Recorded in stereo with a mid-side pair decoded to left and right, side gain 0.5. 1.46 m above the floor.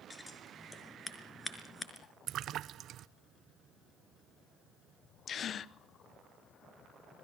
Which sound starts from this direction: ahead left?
A gasp, at 5.3 s.